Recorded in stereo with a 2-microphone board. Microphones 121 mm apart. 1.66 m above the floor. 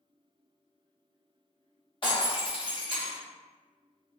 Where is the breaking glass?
45° left (ahead or behind), 1.1 m.